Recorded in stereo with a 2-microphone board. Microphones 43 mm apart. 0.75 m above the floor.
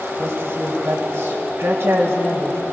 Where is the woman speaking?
50° right (ahead or behind), 3.5 m.